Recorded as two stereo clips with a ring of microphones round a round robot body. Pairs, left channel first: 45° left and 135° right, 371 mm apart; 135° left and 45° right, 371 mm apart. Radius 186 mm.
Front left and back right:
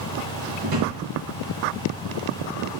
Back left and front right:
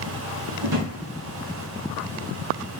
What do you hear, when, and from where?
0.6 s a drawer: 105° right, 1.7 m